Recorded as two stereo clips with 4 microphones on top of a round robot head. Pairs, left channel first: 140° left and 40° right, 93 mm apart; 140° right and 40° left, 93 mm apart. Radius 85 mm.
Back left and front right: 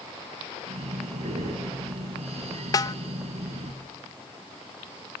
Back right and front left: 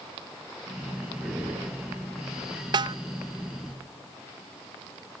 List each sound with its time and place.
0.7 s breathing: 45° right, 8.5 m
2.7 s a snare drum: 85° left, 0.7 m